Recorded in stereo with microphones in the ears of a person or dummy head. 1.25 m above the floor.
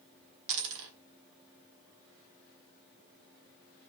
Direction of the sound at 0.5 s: 65° right (ahead or behind).